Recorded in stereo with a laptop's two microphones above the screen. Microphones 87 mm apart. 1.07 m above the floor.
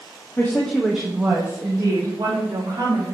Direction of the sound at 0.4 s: 30° left (ahead or behind).